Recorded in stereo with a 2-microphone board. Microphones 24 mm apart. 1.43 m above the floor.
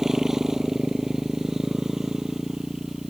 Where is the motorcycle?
15° right (ahead or behind).